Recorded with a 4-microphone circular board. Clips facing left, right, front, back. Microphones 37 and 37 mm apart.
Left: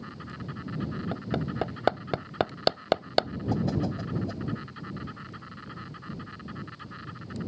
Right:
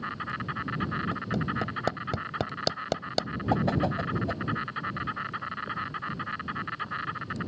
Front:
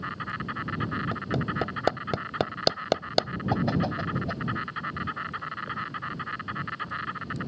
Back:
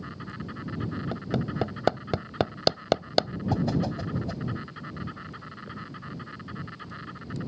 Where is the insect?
45° right.